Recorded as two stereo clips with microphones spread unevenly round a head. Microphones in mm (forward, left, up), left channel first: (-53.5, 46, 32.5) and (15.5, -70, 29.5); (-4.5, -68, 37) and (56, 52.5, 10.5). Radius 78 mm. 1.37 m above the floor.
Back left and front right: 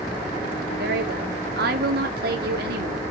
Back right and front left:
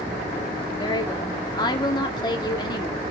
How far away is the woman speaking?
About 2.5 m.